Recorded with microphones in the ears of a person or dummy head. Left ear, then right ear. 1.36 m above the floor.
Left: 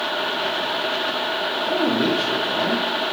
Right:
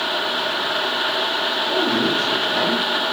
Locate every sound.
1.7 s a man speaking: 25° left (ahead or behind), 0.9 m; by 3.1 s 40° right (ahead or behind), 0.8 m